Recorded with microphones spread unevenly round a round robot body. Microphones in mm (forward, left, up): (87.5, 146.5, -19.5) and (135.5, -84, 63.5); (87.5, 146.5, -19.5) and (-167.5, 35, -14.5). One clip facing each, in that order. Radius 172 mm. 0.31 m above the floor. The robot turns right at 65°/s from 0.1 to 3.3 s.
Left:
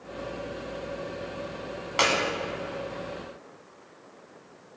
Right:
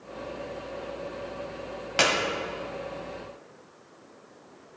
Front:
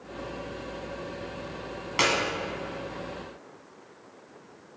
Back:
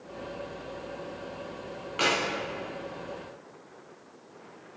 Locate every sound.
2.0 s a clap: 15° right, 1.6 m; by 2.1 s 5° right, 1.6 m